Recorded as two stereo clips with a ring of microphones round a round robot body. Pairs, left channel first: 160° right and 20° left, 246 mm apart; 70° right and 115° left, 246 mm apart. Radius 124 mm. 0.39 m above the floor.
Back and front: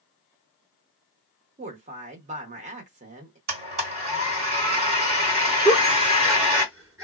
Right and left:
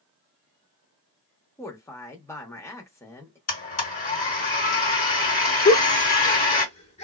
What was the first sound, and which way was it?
A woman speaking, straight ahead.